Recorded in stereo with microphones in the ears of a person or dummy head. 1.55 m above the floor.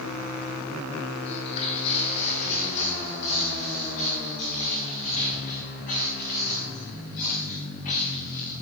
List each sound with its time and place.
1.2 s footsteps: 35° left (ahead or behind), 3 m; by 8.5 s 50° left (ahead or behind), 7.5 m